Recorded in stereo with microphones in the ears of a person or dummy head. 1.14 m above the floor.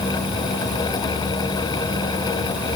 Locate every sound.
Only background noise.